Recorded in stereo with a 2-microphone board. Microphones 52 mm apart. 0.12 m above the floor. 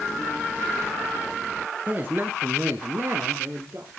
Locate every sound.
1.9 s a man speaking: 30° right (ahead or behind), 1.5 m; by 3.9 s 50° right (ahead or behind), 2.5 m